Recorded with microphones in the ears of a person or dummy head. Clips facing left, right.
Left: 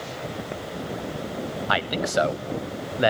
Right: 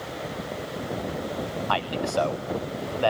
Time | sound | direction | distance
1.7 | a man speaking | 20° left (ahead or behind) | 0.7 m